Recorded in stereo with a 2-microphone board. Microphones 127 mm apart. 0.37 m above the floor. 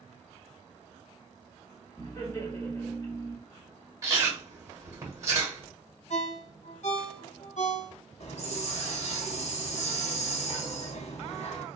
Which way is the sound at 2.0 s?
30° left (ahead or behind).